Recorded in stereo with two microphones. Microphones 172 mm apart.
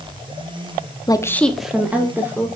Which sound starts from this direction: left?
A woman speaking, at 1.1 s.